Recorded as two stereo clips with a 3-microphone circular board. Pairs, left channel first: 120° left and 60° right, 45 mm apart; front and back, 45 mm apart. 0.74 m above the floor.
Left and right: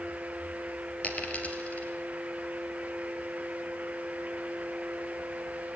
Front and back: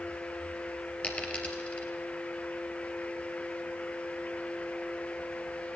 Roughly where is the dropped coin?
Ahead left.